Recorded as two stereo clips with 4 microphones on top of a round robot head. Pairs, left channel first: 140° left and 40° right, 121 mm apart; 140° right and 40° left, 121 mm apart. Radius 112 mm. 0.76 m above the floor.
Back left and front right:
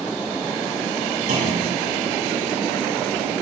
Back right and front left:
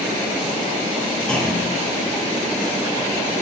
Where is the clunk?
55° right, 6.5 m.